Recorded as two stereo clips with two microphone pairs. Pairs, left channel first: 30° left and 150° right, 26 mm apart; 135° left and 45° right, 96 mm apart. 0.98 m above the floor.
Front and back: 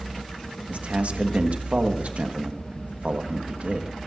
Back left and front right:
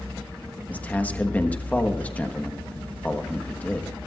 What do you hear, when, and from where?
0.7 s a man speaking: 150° right, 1.4 m